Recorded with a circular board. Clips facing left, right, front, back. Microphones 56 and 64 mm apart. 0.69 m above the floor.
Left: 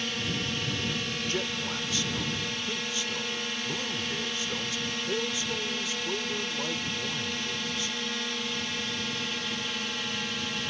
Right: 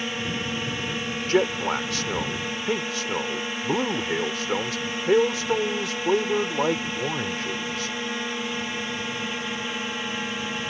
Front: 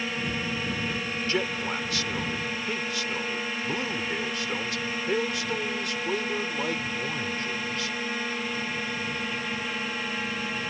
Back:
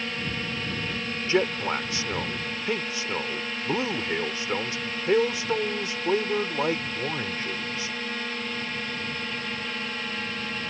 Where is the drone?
70° right.